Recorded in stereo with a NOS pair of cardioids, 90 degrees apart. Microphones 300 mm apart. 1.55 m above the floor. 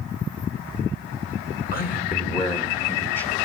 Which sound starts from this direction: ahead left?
A man speaking, at 1.7 s.